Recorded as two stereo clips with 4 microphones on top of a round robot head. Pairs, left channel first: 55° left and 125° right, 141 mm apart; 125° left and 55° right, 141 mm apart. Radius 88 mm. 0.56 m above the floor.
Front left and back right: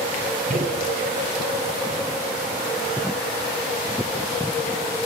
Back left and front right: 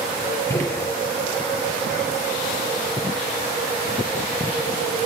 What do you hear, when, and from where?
0.5 s a gunshot: 160° right, 5.5 m